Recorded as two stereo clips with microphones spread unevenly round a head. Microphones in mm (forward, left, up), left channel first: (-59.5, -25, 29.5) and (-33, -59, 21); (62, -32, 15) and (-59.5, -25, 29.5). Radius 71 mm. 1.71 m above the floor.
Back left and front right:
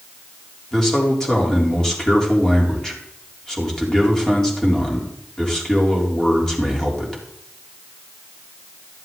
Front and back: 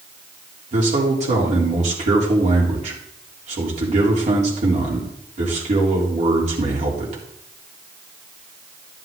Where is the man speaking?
155° right, 3.5 m.